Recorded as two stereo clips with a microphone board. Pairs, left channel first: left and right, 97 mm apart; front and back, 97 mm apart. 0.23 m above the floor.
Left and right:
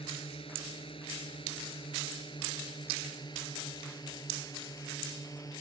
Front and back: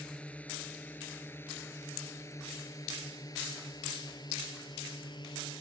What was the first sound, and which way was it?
A drone, 80° left.